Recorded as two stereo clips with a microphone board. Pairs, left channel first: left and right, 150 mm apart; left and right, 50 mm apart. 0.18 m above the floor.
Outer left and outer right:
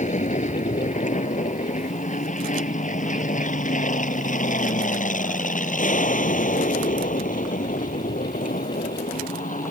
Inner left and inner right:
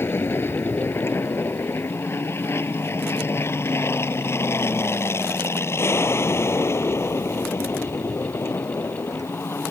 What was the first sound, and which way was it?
An aircraft, 55° left (ahead or behind).